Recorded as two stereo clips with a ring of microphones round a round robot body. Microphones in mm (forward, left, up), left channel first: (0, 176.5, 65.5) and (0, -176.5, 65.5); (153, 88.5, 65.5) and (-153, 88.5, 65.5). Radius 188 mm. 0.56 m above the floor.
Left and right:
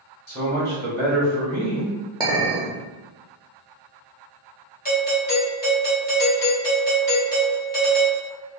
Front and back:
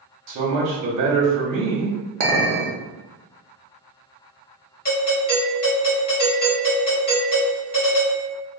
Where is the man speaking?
Straight behind, 0.9 m.